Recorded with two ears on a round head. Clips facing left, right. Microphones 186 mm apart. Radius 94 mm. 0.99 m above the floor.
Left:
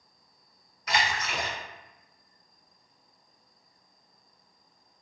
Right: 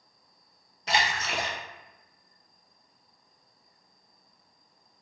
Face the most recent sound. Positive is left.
turn(degrees=-25)  # may be behind; listen again after turning